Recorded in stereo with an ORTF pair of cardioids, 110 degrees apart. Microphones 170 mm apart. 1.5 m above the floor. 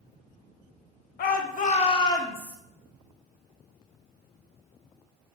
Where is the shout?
70° left, 0.8 m; by 2.6 s 5° left, 0.9 m.